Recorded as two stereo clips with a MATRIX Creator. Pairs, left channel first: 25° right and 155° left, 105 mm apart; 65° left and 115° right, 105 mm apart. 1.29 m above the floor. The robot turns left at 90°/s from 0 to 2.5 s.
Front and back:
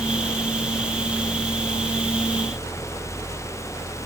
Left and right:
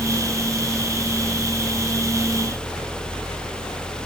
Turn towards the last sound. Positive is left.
No sound to turn to.